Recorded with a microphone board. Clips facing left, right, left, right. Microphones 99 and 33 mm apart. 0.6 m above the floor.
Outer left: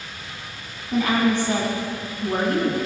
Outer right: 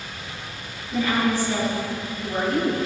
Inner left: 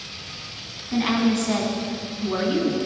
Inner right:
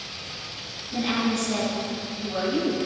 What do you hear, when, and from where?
0.9 s a woman speaking: 80° left, 4 m